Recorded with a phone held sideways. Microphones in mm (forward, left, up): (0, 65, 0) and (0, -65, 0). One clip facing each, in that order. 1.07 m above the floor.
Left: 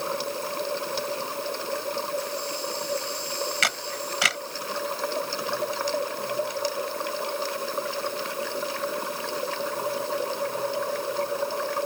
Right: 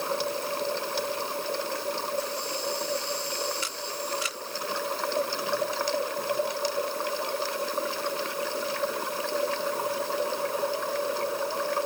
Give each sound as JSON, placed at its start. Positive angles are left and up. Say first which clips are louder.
{"t": 3.6, "sound": "a camera shutter", "louder": "left 3 dB", "side_deg": 80}